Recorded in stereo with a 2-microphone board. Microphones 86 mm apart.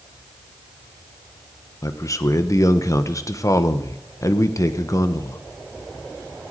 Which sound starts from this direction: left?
A man speaking, at 1.8 s.